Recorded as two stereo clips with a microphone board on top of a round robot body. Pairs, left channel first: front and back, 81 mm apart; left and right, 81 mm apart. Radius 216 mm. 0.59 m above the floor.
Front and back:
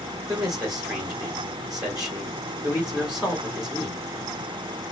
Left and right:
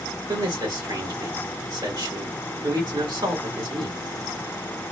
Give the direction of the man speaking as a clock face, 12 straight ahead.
3 o'clock.